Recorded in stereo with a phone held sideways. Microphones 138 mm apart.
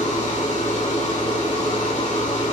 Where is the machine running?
65° left (ahead or behind), 3 m.